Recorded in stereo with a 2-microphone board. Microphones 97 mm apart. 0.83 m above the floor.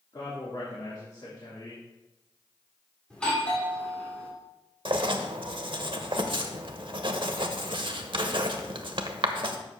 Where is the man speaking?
55° left (ahead or behind), 2 m.